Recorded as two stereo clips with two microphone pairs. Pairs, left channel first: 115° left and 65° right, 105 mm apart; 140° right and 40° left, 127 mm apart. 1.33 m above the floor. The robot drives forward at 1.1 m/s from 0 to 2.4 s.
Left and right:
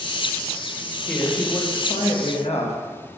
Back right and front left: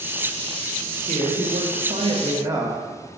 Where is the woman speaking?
40° left, 1.6 m; by 2.8 s 105° left, 1.1 m.